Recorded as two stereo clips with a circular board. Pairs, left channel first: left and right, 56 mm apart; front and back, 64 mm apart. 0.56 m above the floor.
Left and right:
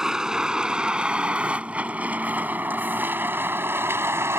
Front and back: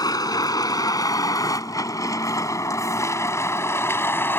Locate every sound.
0.0 s a vehicle: 10° right; by 4.4 s 55° right